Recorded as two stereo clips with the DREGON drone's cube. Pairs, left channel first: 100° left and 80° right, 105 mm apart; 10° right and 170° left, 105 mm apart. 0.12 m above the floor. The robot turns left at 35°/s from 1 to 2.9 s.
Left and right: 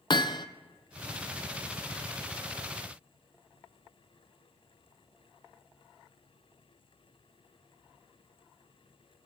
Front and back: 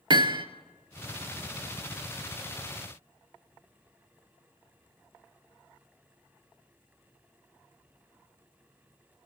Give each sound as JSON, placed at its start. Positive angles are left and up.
{"t": 0.1, "sound": "hammering", "azimuth_deg": 135, "distance_m": 0.6}